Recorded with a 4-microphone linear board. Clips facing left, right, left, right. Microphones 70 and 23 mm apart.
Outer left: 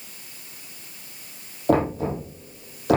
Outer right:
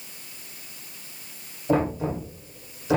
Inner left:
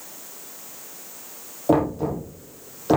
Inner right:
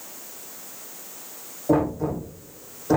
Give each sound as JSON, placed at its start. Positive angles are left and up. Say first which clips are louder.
{"t": 1.7, "sound": "knocking", "louder": "outer left 2 dB, inner left 1 dB", "side_deg": 65, "distance_m": 4.0}